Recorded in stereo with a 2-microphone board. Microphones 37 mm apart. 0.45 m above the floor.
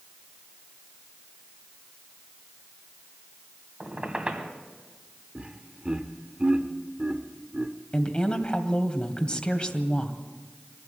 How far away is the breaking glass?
No breaking glass in this recording.